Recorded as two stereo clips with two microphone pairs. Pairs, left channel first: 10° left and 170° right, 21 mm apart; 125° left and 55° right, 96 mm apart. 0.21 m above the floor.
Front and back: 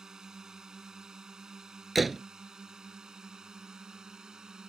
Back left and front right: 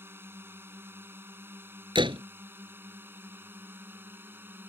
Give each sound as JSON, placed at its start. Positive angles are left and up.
{"t": 0.0, "sound": "a drone", "azimuth_deg": -115}
{"t": 1.9, "sound": "a door slam", "azimuth_deg": -80}